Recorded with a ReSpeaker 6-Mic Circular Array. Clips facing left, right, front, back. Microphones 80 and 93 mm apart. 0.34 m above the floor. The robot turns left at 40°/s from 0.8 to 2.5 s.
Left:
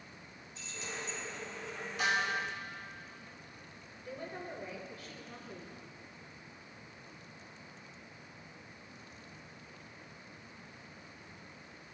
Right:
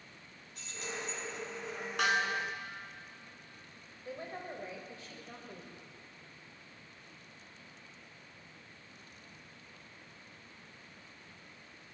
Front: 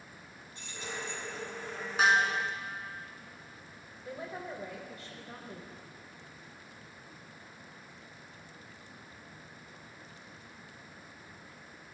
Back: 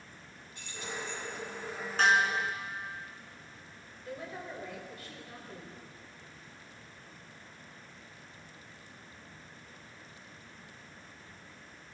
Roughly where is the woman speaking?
Ahead right.